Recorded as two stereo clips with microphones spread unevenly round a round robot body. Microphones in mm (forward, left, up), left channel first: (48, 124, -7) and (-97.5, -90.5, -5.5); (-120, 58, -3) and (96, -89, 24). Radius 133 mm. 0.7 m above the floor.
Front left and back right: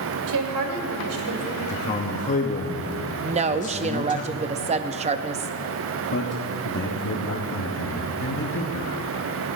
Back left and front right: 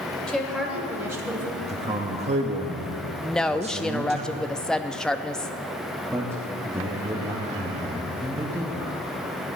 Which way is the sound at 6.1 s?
50° left.